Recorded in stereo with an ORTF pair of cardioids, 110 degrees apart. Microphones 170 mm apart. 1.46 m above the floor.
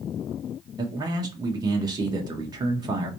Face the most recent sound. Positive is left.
turn(degrees=-25)